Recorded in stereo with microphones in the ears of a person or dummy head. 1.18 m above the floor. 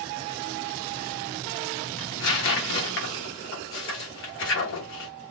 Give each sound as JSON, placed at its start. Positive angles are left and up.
{"t": 2.0, "sound": "tearing paper", "side_deg": 55, "distance_m": 1.2}